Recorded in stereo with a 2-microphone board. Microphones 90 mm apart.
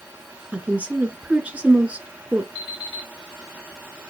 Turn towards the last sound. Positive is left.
turn(degrees=55)  # may be behind; listen again after turning